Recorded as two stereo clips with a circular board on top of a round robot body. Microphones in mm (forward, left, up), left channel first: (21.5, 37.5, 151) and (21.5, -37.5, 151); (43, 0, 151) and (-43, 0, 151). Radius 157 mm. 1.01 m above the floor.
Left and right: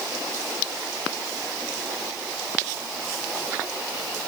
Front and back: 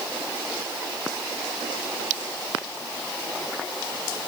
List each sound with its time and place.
Only background noise.